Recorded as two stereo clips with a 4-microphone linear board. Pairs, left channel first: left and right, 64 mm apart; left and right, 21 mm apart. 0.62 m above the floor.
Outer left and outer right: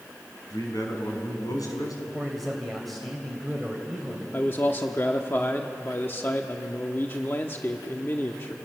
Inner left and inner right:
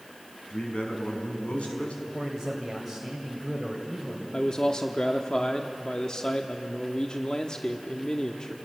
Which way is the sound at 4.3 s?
35° left (ahead or behind).